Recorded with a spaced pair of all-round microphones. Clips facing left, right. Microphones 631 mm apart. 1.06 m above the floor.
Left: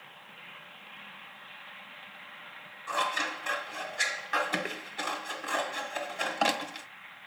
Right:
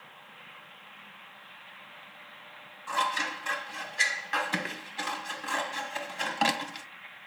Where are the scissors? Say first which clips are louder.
Left 1 dB; 30° right (ahead or behind), 1.0 m.